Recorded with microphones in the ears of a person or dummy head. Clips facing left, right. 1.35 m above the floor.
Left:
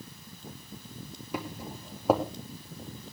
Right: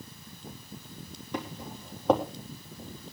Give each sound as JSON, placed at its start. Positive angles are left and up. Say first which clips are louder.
{"t": 1.3, "sound": "footsteps", "louder": "even", "side_deg": 10, "distance_m": 3.5}